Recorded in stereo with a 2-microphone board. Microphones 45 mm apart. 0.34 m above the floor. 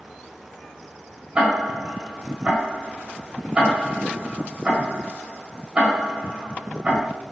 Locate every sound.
1.4 s ticking: 25° right (ahead or behind), 1.9 m